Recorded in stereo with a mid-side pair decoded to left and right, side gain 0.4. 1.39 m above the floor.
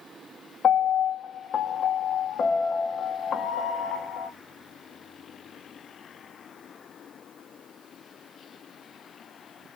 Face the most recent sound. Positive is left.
turn(degrees=50)